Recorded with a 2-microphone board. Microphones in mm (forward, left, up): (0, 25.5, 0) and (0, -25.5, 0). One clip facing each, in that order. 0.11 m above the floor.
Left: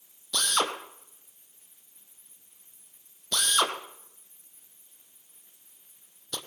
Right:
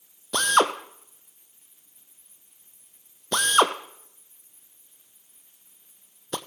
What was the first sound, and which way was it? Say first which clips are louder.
A drill: right 7 dB; 35° right (ahead or behind).